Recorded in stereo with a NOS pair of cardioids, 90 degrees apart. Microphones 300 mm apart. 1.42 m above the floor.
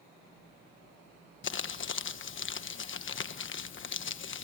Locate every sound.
1.4 s crumpling: 45° left, 1.3 m